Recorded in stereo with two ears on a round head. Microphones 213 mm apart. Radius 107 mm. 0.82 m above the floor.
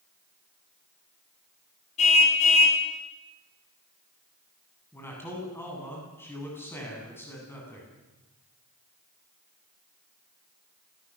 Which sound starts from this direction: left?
A car horn, at 2.0 s.